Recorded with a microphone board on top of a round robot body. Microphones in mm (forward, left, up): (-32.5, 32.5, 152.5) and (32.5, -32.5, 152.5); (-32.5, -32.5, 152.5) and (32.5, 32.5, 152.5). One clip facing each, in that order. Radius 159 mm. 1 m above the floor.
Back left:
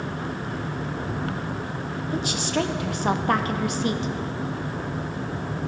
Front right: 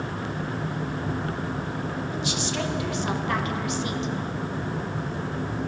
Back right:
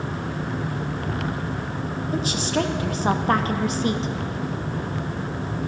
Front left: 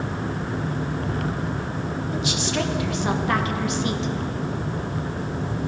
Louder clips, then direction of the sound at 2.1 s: Back left 7 dB, back right 3 dB; 175° left.